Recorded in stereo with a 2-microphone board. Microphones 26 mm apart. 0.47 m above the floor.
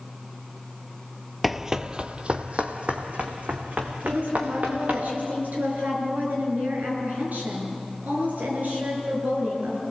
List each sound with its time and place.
1.4 s running footsteps: centre (ahead or behind), 0.6 m; by 5.0 s 60° right (ahead or behind), 3.5 m
4.0 s a woman speaking: 85° right, 7.5 m